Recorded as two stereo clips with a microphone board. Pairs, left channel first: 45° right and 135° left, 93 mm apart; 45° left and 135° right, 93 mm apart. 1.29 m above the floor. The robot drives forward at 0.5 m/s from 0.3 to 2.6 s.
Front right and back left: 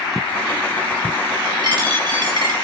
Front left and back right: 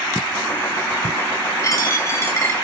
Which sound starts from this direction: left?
A dropped coin, at 1.6 s.